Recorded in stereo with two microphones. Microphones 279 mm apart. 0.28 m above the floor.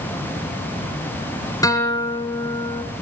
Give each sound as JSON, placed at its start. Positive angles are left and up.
{"t": 1.6, "sound": "a guitar", "side_deg": 10, "distance_m": 2.5}